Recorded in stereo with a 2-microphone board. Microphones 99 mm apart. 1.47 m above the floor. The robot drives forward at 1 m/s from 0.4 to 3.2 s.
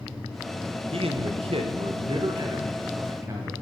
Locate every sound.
0.9 s a man speaking: 75° right (ahead or behind), 1.2 m; by 3.5 s 30° right (ahead or behind), 2.5 m